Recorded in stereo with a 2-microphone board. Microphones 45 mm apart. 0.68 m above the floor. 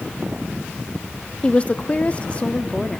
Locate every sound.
1.4 s a woman speaking: 25° left (ahead or behind), 0.7 m